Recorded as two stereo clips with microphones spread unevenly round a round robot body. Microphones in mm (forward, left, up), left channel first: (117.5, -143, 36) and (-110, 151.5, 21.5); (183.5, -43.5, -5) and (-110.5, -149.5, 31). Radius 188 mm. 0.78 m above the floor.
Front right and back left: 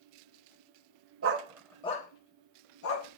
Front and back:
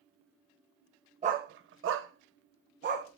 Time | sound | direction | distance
1.2 | a dog barking | 155° left | 0.6 m